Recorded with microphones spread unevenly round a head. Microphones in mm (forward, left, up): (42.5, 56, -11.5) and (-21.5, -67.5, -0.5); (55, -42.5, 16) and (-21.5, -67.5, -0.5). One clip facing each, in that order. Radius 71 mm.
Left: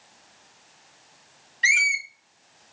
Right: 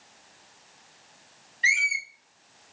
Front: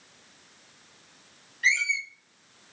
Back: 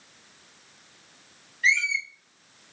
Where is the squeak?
50° left, 0.7 m.